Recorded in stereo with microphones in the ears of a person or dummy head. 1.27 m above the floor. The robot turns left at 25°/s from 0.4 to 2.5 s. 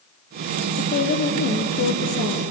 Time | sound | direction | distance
0.8 | a woman speaking | 130° left | 0.7 m